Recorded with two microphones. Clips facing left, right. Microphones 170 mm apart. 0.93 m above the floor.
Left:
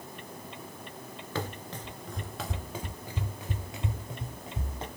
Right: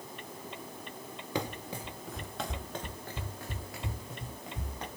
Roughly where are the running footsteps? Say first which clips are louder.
Right 1 dB; centre.